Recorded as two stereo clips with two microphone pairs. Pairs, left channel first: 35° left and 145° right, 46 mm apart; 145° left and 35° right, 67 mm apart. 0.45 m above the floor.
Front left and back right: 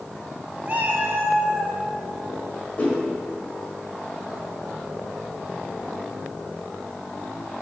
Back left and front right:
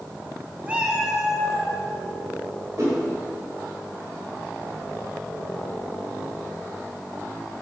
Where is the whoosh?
15° right, 1.9 m.